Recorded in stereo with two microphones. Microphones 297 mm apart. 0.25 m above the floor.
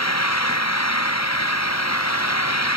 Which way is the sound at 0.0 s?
60° left (ahead or behind).